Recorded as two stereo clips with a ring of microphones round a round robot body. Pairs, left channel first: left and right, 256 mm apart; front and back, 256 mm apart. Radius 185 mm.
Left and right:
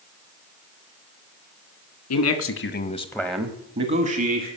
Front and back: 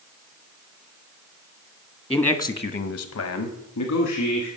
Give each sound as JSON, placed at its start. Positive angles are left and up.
{"t": 2.1, "sound": "a man speaking", "azimuth_deg": 85, "distance_m": 1.4}